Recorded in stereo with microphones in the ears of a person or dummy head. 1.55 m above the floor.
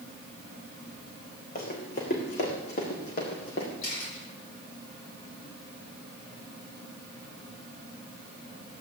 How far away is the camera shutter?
About 9 m.